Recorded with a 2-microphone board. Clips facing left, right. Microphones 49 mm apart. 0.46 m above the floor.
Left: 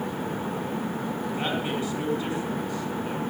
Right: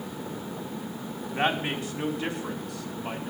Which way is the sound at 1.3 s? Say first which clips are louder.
Right 4 dB; 55° right (ahead or behind).